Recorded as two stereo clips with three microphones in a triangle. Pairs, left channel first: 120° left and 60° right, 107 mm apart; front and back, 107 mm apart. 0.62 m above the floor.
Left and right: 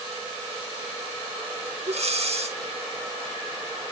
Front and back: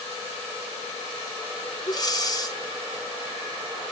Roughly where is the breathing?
Ahead right.